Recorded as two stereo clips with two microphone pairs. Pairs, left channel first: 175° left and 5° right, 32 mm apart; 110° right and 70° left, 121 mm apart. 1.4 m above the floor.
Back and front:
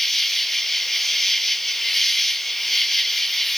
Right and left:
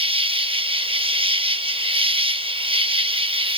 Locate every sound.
0.0 s an insect: 90° left, 0.9 m